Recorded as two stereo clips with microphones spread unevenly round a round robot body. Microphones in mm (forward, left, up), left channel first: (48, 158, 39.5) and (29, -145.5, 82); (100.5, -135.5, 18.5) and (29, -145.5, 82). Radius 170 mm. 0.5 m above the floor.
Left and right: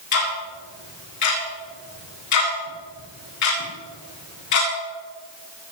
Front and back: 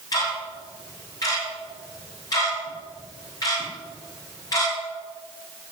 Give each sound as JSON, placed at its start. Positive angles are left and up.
{"t": 0.1, "sound": "ticking", "azimuth_deg": 55, "distance_m": 8.5}